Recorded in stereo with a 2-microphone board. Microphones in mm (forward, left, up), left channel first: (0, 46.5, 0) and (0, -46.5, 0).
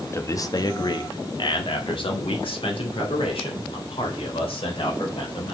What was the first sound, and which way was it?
A man speaking, 30° left (ahead or behind).